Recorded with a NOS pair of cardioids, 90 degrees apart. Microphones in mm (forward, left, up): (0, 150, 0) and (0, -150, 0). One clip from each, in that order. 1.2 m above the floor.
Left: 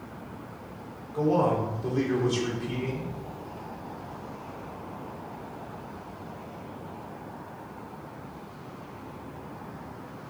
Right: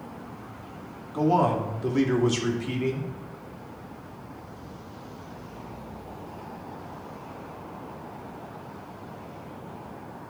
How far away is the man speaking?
About 2.5 m.